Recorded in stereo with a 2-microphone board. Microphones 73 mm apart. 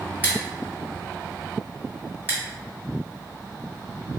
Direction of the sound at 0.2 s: 25° right (ahead or behind).